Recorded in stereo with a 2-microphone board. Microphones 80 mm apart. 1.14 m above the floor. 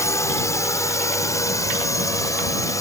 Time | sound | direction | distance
0.0 | a drone | 40° left (ahead or behind) | ?